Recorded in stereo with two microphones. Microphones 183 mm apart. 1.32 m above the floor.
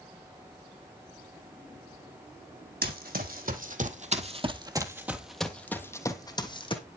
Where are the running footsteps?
55° right (ahead or behind), 2.5 m; by 6.8 s 30° left (ahead or behind), 2.5 m.